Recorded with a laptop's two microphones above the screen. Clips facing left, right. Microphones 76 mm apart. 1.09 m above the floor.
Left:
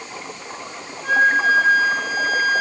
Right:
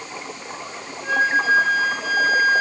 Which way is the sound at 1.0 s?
70° left (ahead or behind).